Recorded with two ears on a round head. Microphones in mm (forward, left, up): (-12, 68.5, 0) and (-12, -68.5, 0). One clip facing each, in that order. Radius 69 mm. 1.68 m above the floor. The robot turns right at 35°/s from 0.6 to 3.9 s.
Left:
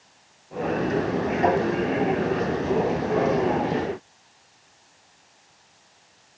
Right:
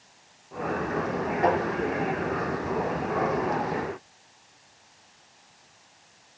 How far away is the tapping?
About 3 m.